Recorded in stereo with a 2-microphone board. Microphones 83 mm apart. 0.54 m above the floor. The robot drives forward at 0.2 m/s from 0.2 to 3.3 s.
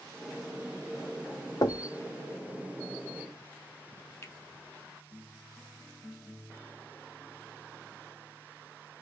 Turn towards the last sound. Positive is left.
turn(degrees=30)  # may be behind; listen again after turning